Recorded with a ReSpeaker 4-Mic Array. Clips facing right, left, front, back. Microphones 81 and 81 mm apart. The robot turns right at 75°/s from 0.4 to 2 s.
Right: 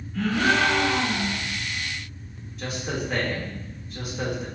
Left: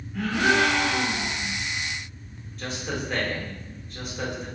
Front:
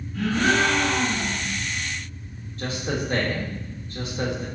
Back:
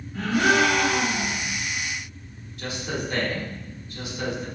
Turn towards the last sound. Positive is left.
turn(degrees=-5)